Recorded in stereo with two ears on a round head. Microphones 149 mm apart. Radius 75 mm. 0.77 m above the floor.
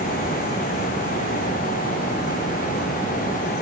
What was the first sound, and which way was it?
Only background noise.